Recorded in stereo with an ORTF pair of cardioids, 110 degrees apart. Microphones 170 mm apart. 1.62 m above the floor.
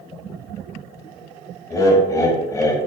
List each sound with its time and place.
1.7 s laughter: 20° left, 0.9 m